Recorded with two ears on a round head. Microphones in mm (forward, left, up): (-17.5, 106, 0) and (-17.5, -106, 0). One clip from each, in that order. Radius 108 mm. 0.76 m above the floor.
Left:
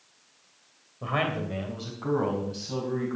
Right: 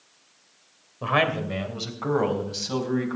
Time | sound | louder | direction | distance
1.0 | a man speaking | right 6 dB | 35° right (ahead or behind) | 2.5 m